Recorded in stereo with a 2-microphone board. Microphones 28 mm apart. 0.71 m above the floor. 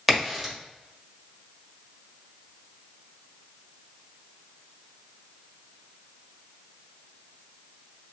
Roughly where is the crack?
Centre.